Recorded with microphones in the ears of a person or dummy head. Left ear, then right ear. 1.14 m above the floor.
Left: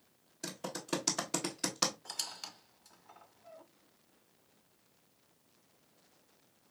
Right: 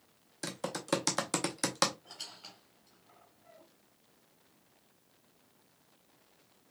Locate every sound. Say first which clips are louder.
0.4 s typing on a keyboard: right 5 dB; 30° right (ahead or behind), 0.8 m
2.0 s a squeak: left 5 dB; 60° left (ahead or behind), 1.0 m